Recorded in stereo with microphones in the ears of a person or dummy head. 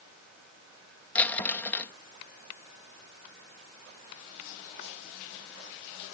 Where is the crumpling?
15° left (ahead or behind).